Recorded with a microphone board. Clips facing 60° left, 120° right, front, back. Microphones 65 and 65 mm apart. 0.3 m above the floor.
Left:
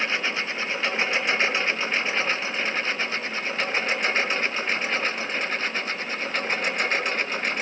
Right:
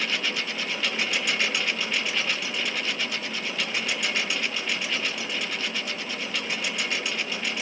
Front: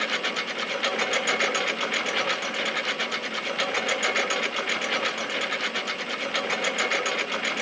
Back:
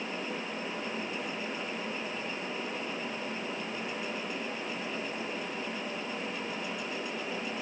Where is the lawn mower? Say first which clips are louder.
Left 3 dB, front 8 dB; straight ahead; by 7.6 s 10° left.